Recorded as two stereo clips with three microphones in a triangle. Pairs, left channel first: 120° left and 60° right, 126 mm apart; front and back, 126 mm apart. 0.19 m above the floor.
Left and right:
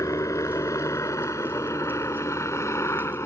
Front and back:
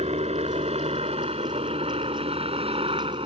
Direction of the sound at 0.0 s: Straight behind.